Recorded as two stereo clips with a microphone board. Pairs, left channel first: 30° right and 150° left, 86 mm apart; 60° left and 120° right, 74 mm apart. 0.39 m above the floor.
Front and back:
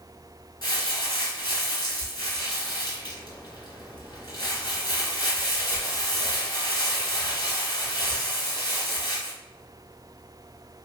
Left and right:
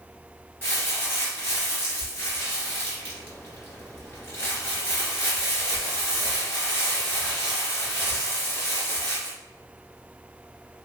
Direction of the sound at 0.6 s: 5° left.